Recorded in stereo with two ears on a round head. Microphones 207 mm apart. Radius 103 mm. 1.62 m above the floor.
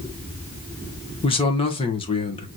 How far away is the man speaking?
About 1.4 m.